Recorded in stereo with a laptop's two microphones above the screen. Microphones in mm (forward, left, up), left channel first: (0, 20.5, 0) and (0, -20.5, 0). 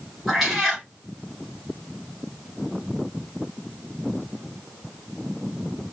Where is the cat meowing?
10° right (ahead or behind), 1.3 m.